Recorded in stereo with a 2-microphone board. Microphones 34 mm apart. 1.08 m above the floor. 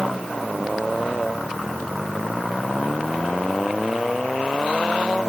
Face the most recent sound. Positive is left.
No sound to turn to.